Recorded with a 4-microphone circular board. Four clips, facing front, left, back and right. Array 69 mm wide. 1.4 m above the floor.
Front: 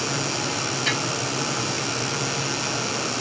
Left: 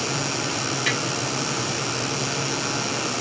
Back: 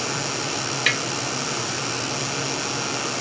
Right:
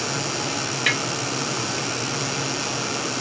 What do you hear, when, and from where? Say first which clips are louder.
0.9 s tapping: right 3 dB, back 4 dB; 145° right, 0.7 m